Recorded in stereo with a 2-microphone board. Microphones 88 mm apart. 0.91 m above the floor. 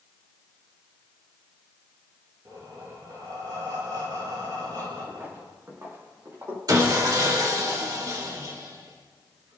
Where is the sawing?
45° right (ahead or behind), 2 m.